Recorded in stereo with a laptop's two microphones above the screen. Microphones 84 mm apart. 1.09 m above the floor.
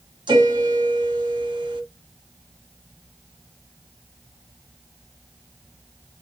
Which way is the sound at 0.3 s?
60° right (ahead or behind).